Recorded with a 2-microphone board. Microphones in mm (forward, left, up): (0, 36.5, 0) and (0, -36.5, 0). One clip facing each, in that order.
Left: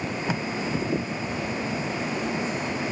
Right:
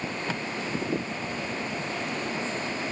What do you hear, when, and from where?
0.3 s tape being pulled: 15° left (ahead or behind)